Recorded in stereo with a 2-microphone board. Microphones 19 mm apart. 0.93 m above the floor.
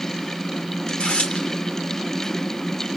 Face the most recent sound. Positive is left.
turn(degrees=75)  # may be behind; listen again after turning